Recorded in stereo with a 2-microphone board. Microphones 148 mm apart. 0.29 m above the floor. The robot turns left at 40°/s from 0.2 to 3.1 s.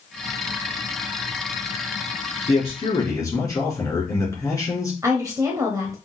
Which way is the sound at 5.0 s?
25° right (ahead or behind).